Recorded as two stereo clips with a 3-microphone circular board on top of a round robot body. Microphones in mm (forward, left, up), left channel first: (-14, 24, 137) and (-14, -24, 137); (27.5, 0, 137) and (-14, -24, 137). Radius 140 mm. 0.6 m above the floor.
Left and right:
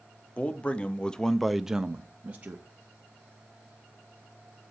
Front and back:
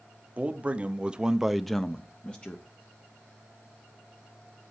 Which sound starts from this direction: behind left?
A man speaking, at 0.4 s.